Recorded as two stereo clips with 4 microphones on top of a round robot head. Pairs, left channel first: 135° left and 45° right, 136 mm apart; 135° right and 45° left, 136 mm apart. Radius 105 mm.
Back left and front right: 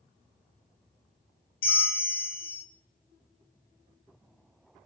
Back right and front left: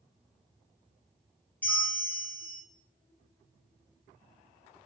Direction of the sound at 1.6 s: 145° left.